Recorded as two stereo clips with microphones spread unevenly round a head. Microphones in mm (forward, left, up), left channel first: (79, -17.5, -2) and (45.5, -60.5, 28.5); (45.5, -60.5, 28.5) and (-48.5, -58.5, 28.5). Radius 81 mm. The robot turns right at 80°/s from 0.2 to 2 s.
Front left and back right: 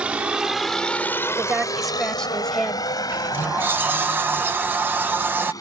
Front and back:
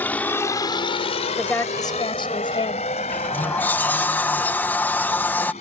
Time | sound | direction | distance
0.0 | a vehicle | 70° right | ?
1.4 | a woman speaking | 85° right | ?
3.1 | a sliding door | 70° right | ?